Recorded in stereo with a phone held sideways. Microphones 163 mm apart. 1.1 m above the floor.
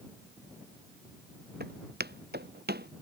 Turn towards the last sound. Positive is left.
turn(degrees=-80)